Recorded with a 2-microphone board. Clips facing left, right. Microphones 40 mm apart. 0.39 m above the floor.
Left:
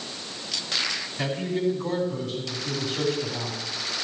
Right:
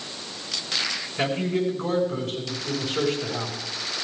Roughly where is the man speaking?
Right.